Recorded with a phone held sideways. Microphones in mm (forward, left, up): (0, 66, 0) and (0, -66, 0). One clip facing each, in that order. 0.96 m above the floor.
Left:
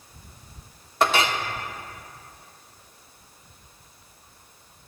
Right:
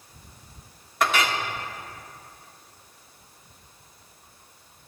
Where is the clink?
30° left (ahead or behind), 0.9 m.